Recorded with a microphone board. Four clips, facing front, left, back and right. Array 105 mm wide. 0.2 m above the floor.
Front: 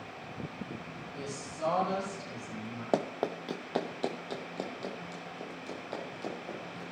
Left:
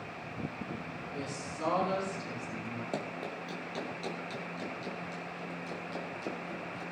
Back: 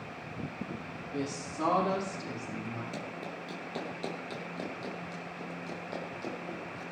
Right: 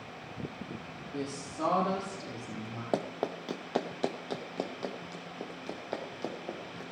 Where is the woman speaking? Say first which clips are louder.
Right 4 dB, back 7 dB; 135° right, 7 m.